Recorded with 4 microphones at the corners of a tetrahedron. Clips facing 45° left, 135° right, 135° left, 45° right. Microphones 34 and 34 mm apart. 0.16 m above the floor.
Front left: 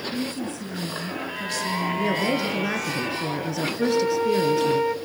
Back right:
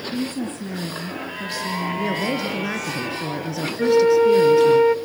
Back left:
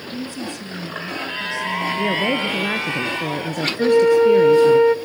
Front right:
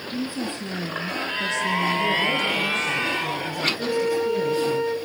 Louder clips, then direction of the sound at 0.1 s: Back right 2 dB, front right 1 dB; 115° right.